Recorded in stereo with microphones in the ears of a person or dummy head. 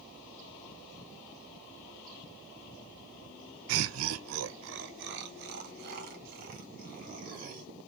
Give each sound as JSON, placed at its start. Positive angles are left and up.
{"t": 3.7, "sound": "laughter", "side_deg": -65, "distance_m": 0.5}